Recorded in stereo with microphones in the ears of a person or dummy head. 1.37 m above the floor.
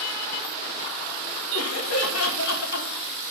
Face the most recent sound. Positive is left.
turn(degrees=60)  # may be behind; listen again after turning